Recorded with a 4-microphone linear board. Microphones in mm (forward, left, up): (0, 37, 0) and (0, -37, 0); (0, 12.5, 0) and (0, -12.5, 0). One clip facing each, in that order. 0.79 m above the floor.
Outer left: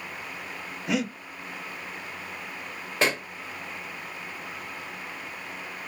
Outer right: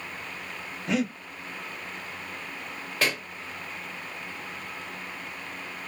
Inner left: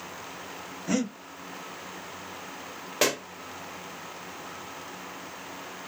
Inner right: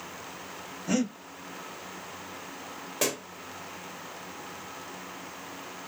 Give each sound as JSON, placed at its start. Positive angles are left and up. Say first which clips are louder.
{"t": 0.9, "sound": "breathing", "louder": "outer right 1 dB, even", "side_deg": 10, "distance_m": 2.5}
{"t": 3.0, "sound": "a pop", "louder": "outer left 3 dB, inner left 5 dB", "side_deg": 25, "distance_m": 0.7}